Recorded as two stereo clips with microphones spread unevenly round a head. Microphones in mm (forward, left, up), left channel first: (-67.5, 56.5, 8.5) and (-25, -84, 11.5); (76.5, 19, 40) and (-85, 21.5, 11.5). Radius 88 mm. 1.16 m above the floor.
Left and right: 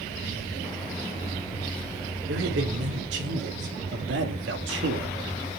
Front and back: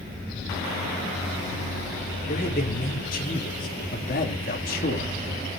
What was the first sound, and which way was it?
A man speaking, 50° right.